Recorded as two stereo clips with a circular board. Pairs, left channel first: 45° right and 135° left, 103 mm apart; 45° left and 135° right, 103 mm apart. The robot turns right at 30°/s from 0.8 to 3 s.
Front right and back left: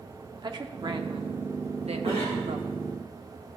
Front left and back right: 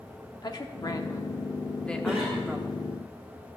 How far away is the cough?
About 1.7 m.